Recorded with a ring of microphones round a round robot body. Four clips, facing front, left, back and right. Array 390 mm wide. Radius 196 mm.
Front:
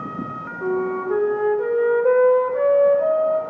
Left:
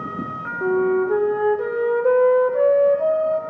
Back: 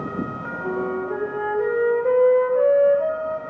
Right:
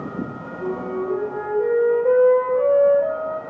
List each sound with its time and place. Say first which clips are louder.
0.6 s a flute: left 7 dB, front 3 dB; 75° left, 0.7 m